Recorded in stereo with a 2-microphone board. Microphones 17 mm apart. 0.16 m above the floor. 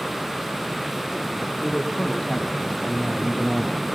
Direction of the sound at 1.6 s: 25° left (ahead or behind).